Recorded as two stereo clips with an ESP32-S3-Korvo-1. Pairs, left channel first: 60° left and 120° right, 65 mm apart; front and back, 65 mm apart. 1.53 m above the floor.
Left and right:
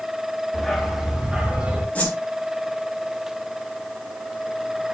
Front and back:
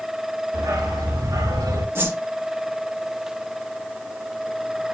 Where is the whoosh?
130° left, 4 m.